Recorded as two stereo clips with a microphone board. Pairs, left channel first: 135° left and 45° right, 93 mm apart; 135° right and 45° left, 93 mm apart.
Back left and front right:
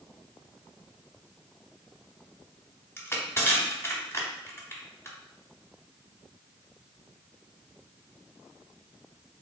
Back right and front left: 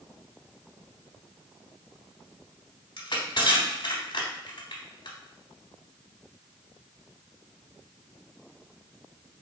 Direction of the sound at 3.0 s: 165° right.